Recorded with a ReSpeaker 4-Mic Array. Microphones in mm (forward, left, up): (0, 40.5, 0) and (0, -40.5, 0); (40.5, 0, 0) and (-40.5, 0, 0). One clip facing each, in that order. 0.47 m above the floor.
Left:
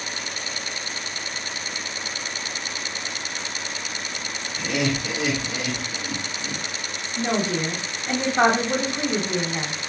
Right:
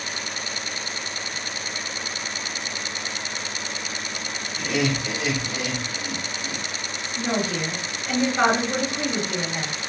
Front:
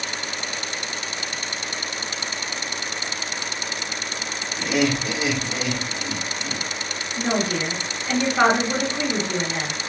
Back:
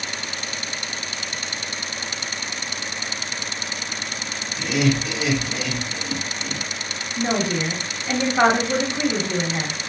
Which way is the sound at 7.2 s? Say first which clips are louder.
Left 2 dB, back 1 dB; 105° left.